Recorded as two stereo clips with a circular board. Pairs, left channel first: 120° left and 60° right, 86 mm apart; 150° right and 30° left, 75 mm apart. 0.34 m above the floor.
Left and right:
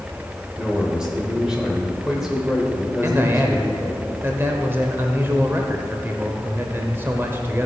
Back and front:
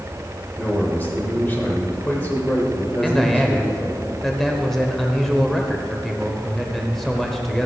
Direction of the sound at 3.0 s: 65° right.